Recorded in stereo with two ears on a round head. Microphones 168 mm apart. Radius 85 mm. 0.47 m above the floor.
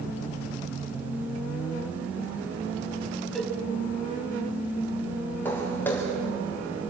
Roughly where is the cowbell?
Centre.